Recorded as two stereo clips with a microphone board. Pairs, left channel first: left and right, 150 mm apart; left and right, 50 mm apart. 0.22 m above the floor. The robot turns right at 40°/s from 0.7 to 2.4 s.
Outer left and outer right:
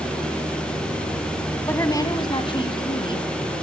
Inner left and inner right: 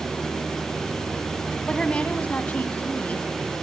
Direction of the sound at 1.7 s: 15° left (ahead or behind).